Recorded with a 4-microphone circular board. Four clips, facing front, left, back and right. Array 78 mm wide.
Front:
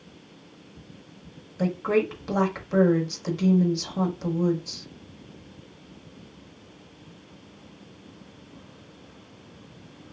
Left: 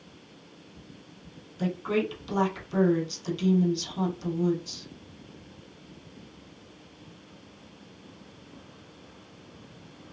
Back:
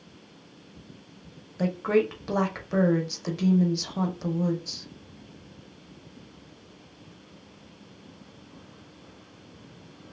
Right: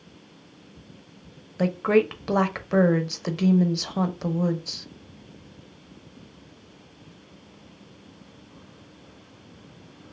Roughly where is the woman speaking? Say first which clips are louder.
Right 7 dB, even; right.